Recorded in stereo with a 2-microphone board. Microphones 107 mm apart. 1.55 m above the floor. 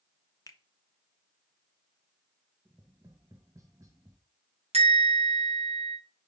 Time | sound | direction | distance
0.5 | a finger snap | 30° left (ahead or behind) | 0.7 m
2.6 | tapping | 30° right (ahead or behind) | 1.2 m
4.7 | a bell | 75° right (ahead or behind) | 2.5 m